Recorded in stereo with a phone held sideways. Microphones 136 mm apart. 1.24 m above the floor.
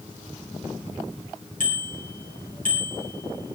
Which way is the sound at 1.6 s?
90° left.